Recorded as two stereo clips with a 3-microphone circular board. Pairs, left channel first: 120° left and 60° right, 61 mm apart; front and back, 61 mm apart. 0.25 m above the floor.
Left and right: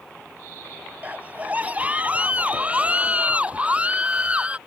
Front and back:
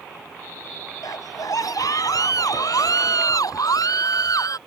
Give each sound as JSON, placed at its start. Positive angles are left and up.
{"t": 1.0, "sound": "a scream", "azimuth_deg": 5}